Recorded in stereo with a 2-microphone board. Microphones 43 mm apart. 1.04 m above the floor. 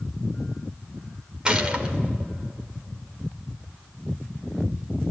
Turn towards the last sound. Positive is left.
turn(degrees=-20)  # may be behind; listen again after turning